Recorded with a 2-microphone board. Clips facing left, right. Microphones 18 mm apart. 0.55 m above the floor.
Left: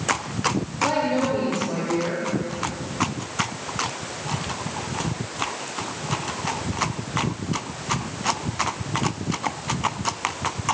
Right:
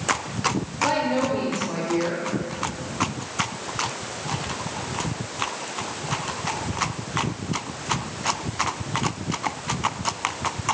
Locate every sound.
0.8 s a woman speaking: 20° right (ahead or behind), 1.4 m